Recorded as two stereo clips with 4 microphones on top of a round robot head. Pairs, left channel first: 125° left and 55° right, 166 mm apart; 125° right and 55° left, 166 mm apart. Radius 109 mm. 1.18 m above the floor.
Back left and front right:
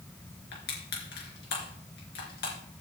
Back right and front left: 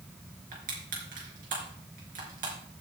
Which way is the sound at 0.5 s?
100° left.